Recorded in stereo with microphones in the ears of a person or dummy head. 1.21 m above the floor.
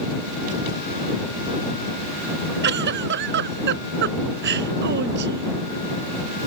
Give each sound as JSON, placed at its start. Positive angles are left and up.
{"t": 2.6, "sound": "a giggle", "side_deg": -55}